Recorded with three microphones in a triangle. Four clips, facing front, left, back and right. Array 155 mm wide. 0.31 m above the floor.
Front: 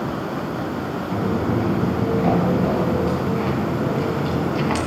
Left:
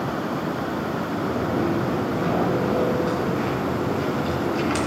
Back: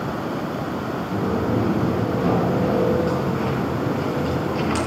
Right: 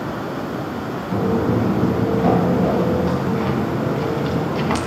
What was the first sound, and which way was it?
Footsteps, 85° right.